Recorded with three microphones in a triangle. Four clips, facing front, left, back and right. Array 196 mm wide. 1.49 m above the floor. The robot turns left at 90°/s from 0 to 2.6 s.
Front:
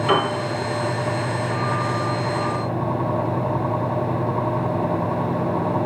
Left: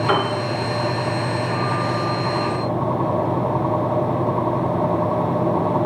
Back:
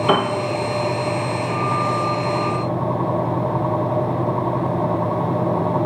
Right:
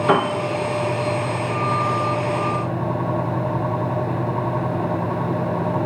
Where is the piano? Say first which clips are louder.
Right 3 dB, back 1 dB; 145° right, 1.5 m; by 0.3 s 165° right, 1.5 m.